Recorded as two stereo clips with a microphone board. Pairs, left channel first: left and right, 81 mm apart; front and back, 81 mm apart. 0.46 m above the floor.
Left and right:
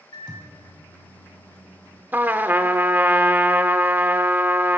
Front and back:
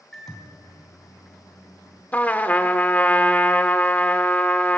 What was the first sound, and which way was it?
A microwave, 85° left.